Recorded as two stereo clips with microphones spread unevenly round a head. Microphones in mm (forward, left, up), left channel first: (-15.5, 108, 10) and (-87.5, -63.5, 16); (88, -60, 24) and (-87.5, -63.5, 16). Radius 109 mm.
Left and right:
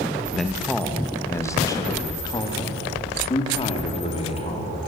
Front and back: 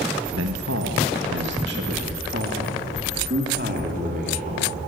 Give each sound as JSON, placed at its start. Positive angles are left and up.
{"t": 0.3, "sound": "a man speaking", "azimuth_deg": 155, "distance_m": 1.4}